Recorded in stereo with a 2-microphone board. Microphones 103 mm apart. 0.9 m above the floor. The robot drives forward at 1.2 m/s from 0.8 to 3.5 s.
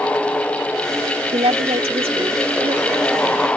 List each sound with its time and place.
1.3 s a woman speaking: 80° right; by 3.5 s 40° right (ahead or behind)